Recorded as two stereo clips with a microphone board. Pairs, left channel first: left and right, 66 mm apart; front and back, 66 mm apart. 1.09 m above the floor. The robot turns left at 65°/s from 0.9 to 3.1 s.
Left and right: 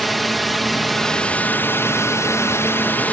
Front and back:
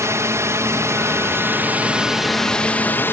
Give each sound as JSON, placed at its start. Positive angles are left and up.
{"t": 0.0, "sound": "a drone", "azimuth_deg": 180}